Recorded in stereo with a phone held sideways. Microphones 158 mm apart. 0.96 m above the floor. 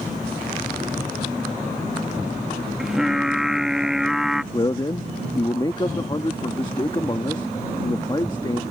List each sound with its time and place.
2.8 s singing: 5° right (ahead or behind)
4.5 s a man speaking: 30° left (ahead or behind)